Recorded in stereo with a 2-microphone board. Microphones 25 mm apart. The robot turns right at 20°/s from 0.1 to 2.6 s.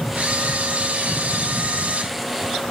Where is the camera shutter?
110° right, 3 m; by 2.1 s 75° right, 3 m.